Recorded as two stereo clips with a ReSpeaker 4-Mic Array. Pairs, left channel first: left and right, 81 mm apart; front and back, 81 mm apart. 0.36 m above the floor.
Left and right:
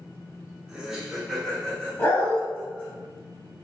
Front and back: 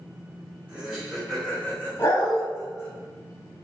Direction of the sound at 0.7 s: 145° right.